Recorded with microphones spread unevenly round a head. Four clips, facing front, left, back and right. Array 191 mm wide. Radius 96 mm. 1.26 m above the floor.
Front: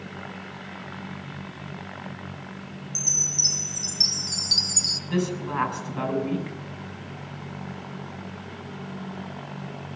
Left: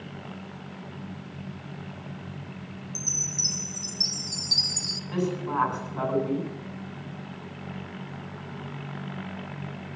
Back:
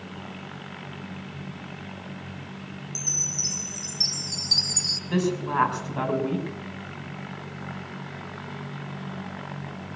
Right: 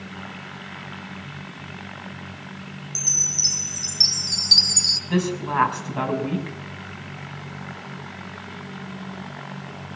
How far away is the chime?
About 1.0 m.